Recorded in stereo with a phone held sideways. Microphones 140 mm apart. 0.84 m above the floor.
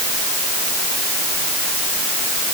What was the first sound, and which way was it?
Only background noise.